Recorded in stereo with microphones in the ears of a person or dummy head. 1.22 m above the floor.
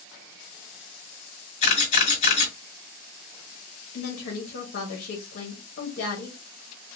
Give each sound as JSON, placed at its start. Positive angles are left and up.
{"t": 1.6, "sound": "a camera shutter", "side_deg": 40, "distance_m": 1.9}
{"t": 3.9, "sound": "a woman speaking", "side_deg": 70, "distance_m": 1.2}